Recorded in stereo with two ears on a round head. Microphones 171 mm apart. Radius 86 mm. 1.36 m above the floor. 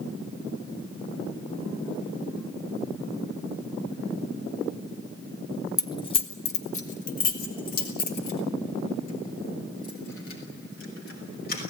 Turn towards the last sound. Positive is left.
turn(degrees=50)  # may be behind; listen again after turning